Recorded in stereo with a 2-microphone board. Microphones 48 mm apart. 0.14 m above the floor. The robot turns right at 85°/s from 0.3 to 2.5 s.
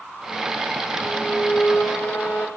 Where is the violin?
Straight ahead, 4.5 m; by 2.5 s 125° left, 4.5 m.